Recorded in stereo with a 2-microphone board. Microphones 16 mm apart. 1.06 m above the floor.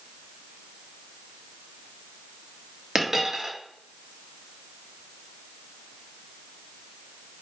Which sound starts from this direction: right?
A dropped coin, at 3.0 s.